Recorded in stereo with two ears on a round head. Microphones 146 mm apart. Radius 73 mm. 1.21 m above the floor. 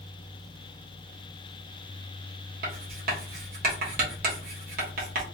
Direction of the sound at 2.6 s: 55° right (ahead or behind).